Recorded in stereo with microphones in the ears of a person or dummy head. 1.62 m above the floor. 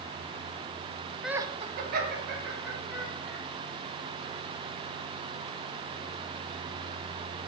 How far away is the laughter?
About 0.6 m.